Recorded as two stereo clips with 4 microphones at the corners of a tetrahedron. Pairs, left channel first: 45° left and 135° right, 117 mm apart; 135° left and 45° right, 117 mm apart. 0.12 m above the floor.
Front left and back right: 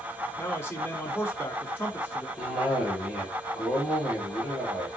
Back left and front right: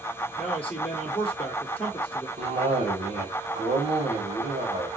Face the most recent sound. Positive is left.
turn(degrees=-60)